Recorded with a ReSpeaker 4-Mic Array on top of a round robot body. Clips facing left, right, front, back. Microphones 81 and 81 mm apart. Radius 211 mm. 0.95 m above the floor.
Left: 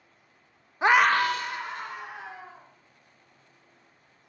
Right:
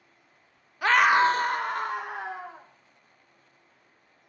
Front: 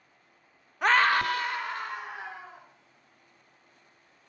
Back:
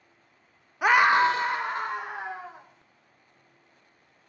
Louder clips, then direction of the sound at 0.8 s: Right 1 dB, back 4 dB; 105° left.